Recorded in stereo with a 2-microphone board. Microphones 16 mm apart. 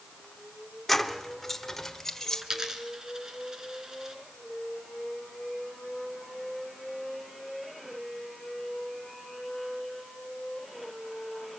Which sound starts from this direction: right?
A dropped coin, at 2.4 s.